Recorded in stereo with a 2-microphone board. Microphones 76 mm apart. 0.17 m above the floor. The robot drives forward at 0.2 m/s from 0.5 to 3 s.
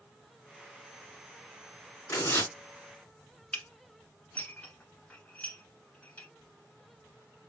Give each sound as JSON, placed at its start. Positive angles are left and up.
{"t": 2.1, "sound": "tearing paper", "side_deg": 35, "distance_m": 2.0}
{"t": 3.5, "sound": "dishes clattering", "side_deg": 20, "distance_m": 1.0}